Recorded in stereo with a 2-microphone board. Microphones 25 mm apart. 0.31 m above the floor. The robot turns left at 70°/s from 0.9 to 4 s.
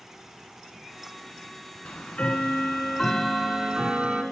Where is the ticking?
100° left, 1.4 m; by 4.2 s 50° right, 1.4 m.